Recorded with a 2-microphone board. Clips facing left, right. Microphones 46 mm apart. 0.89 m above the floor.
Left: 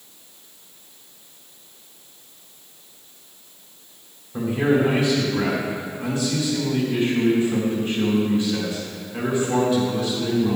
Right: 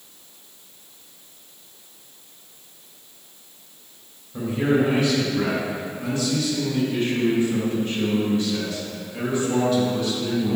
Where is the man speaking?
15° left (ahead or behind), 3 m.